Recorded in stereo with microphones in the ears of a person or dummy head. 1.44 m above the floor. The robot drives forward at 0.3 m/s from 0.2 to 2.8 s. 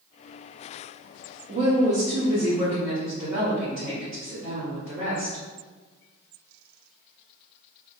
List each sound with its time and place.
1.5 s a woman speaking: 40° right (ahead or behind), 0.6 m; by 5.4 s 25° right (ahead or behind), 0.9 m